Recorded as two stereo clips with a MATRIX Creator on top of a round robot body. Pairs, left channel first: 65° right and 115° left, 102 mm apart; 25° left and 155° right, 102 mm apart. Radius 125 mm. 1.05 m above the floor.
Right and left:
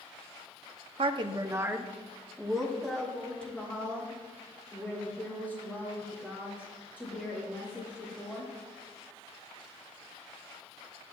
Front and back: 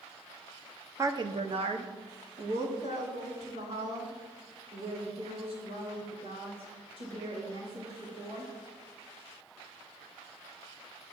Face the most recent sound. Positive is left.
turn(degrees=-135)